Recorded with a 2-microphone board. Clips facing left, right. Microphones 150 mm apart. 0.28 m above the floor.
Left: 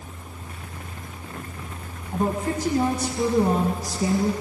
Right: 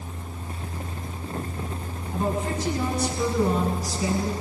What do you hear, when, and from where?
2.1 s a woman speaking: 55° left (ahead or behind), 1.6 m; by 4.3 s 45° left (ahead or behind), 2.5 m